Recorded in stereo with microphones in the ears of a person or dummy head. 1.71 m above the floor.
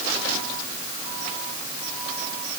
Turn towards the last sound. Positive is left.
No sound to turn to.